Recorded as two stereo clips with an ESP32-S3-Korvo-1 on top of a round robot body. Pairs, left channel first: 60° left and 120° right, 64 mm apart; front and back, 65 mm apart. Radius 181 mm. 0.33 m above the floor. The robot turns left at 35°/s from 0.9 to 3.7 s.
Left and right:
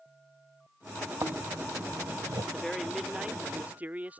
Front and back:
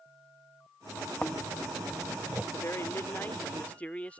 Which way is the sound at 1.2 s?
75° right.